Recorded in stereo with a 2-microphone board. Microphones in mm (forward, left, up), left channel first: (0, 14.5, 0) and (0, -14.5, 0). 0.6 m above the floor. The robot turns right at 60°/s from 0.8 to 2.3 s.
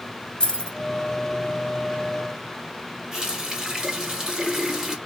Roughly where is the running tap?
Right.